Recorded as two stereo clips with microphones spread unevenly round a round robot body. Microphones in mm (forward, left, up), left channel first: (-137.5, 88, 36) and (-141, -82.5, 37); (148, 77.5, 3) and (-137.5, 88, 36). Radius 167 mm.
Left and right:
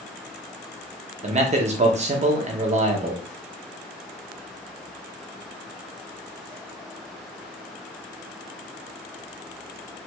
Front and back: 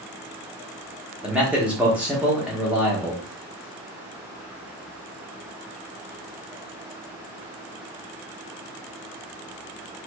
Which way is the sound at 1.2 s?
90° right.